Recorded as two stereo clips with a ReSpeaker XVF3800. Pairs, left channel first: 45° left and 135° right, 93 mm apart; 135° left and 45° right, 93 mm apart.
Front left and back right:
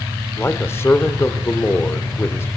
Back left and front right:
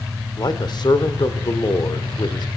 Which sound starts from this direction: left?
A man speaking, at 0.4 s.